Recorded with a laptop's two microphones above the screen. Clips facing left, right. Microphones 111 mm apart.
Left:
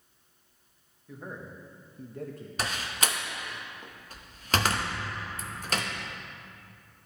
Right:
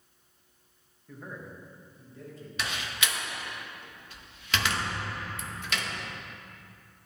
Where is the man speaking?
10° left (ahead or behind), 1.0 m; by 2.5 s 55° left (ahead or behind), 1.1 m.